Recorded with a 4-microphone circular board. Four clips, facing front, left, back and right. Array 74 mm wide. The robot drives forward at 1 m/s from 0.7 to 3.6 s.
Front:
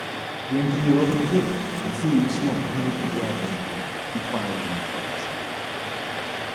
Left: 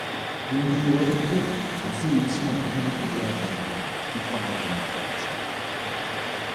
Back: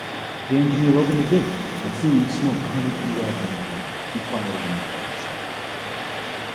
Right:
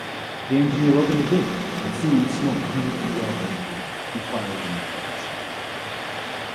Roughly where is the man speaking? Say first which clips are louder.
Right 5 dB, back 3 dB; behind right.